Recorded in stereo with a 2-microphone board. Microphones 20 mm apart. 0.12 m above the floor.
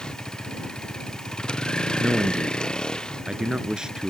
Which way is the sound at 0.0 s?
40° left (ahead or behind).